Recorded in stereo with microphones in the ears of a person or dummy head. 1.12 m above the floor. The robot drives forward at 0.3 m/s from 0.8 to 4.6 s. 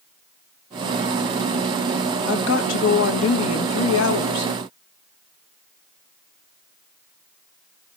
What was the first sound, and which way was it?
A woman speaking, 60° left (ahead or behind).